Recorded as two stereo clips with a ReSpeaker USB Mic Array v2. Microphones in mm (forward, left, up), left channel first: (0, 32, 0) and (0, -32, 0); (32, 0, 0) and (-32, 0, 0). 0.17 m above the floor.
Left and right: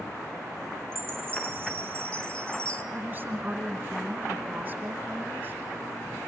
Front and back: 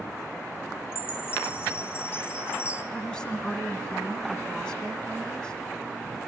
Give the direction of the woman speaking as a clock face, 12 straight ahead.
2 o'clock.